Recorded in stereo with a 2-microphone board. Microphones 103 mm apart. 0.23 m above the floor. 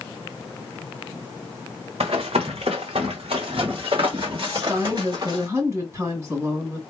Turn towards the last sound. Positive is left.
turn(degrees=-30)  # may be behind; listen again after turning